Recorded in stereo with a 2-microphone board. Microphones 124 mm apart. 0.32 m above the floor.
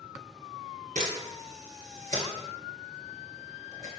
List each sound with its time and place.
0.9 s a camera shutter: 85° right, 0.8 m